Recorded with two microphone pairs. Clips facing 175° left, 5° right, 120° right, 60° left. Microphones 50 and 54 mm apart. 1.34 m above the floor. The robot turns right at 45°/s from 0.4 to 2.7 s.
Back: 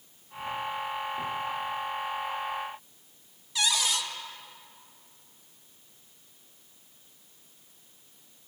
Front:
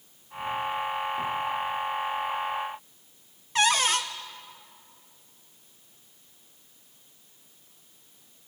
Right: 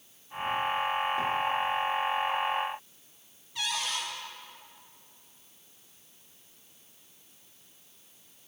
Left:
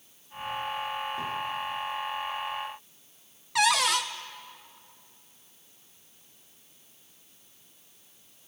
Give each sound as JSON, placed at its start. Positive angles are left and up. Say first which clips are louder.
{"t": 3.5, "sound": "a cupboard door", "louder": "front 6 dB, left 10 dB", "azimuth_deg": 45, "distance_m": 0.9}